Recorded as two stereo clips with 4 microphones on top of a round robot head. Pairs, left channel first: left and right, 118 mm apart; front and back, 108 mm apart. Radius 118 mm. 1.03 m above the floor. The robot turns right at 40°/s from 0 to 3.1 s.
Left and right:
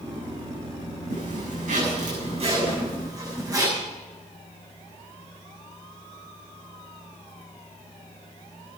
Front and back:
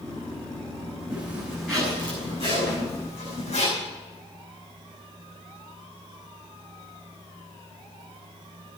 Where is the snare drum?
45° left, 8 m; by 2.8 s 55° left, 8 m.